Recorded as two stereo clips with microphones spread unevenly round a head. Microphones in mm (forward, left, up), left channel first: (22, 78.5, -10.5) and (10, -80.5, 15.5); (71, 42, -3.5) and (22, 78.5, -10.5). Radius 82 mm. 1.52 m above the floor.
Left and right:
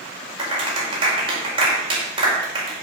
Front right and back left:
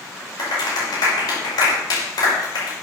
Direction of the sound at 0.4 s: 35° right.